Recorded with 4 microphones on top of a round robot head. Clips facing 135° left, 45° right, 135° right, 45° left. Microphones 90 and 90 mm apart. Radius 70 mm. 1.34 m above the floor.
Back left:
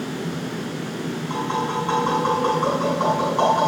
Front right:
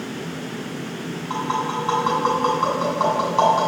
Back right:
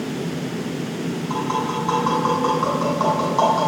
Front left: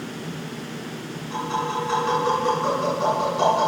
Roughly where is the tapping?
Right.